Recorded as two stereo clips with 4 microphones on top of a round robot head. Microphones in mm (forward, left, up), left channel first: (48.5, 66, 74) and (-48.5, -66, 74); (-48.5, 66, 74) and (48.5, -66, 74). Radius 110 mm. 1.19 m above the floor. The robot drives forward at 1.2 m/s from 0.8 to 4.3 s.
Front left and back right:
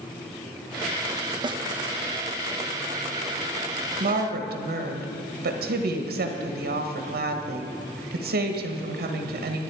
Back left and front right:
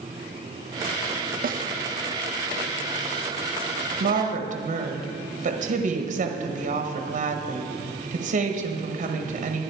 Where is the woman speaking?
85° right, 1.4 m; by 9.6 s 100° right, 1.4 m.